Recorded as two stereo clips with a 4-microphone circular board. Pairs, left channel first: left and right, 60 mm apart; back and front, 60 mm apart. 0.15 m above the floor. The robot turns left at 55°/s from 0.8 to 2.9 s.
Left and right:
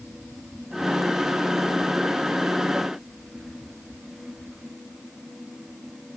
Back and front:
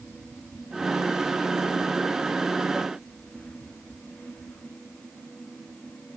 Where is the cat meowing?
I don't hear a cat meowing.